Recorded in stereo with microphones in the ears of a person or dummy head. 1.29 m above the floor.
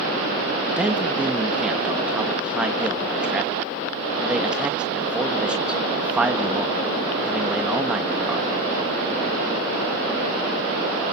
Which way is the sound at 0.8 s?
5° right (ahead or behind).